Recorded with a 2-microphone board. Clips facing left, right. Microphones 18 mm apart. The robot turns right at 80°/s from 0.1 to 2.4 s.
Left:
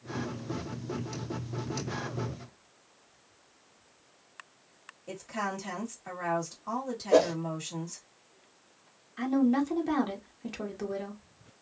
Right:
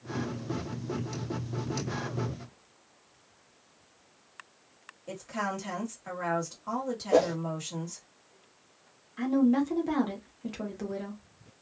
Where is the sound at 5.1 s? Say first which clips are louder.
Right 1 dB; centre (ahead or behind), 1.6 m.